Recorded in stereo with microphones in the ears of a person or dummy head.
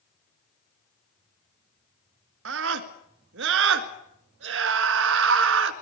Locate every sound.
2.5 s a scream: 75° right (ahead or behind), 1.9 m